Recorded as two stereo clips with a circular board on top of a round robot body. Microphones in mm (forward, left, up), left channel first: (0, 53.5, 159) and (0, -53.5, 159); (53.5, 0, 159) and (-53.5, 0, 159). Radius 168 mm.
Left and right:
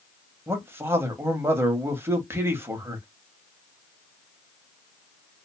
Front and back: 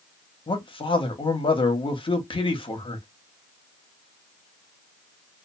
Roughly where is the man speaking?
Ahead right.